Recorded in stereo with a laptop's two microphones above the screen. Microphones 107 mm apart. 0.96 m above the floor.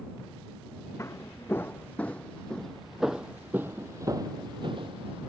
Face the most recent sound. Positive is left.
turn(degrees=-60)  # may be behind; listen again after turning